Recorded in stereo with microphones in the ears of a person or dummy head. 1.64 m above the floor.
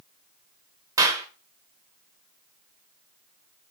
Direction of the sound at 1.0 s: 20° right (ahead or behind).